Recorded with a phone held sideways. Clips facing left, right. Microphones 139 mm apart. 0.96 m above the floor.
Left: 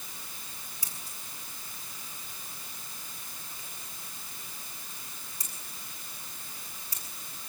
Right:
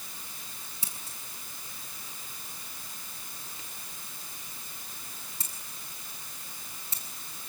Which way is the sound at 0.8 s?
25° right (ahead or behind).